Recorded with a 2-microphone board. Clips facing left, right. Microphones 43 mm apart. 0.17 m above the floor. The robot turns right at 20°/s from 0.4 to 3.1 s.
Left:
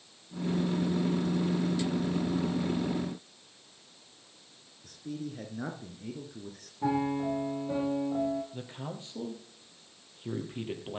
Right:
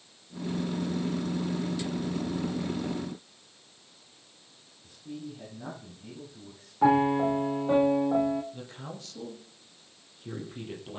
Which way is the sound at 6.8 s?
70° right (ahead or behind).